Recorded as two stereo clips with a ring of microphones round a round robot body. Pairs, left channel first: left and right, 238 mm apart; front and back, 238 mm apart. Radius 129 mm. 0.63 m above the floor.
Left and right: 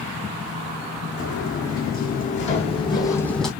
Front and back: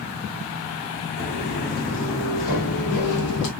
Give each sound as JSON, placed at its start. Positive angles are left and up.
{"t": 1.2, "sound": "footsteps", "azimuth_deg": 45, "distance_m": 3.0}